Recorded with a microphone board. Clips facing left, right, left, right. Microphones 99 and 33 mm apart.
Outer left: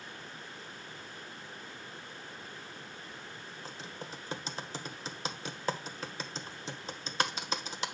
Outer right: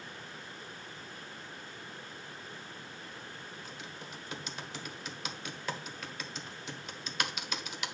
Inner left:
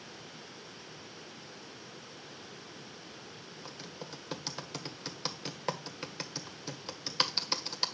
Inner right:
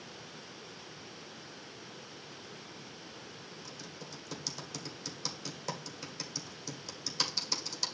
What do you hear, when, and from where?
3.6 s typing on a keyboard: 35° left (ahead or behind), 1.3 m